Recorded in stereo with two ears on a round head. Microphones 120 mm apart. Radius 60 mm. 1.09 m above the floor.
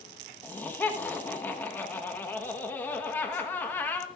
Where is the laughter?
15° left (ahead or behind), 1.2 m.